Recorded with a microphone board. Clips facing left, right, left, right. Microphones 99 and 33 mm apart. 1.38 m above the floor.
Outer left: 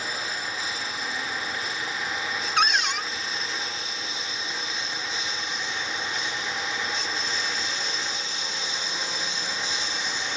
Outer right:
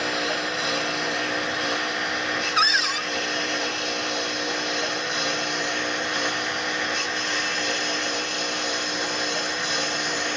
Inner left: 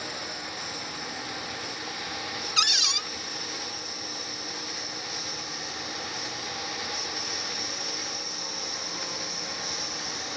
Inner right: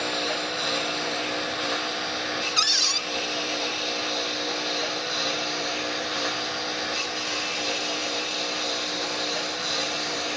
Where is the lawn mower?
60° right (ahead or behind); by 10.4 s 55° right (ahead or behind).